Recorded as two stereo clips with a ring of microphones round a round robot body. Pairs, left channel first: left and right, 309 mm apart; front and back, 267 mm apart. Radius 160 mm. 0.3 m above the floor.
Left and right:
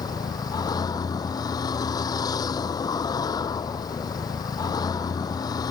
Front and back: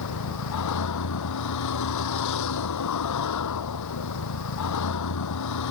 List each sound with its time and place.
0.0 s a vehicle: 10° left